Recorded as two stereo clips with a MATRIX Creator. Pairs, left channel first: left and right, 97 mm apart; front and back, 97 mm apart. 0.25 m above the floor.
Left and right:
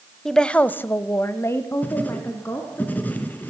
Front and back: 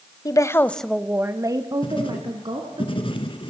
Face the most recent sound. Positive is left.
turn(degrees=20)